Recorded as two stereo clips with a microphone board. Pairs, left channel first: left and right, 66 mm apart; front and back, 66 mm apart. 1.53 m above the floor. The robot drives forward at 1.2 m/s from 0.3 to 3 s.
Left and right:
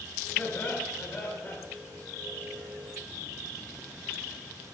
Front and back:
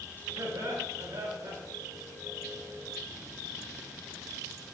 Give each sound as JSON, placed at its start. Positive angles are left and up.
{"t": 0.4, "sound": "laughter", "azimuth_deg": 150, "distance_m": 4.5}